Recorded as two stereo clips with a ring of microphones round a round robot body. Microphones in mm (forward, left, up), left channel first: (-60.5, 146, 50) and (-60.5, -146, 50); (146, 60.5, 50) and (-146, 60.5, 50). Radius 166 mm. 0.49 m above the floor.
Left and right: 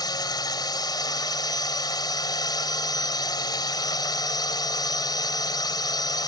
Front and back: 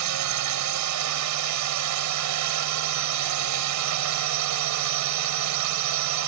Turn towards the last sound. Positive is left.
turn(degrees=165)